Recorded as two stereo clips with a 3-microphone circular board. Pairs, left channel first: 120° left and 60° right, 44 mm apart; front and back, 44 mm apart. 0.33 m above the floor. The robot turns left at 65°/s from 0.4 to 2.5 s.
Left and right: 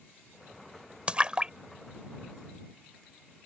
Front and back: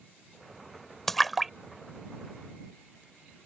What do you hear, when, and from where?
1.1 s a splash: 70° right; by 3.0 s 165° right